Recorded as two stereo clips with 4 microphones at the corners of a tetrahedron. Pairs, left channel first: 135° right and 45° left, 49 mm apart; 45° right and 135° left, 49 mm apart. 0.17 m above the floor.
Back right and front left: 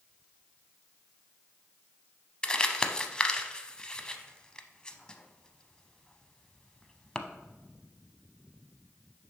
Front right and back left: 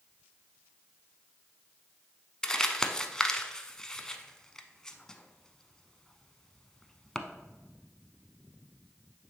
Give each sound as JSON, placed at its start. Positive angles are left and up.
{"t": 2.4, "sound": "crumpling", "azimuth_deg": -95, "distance_m": 0.6}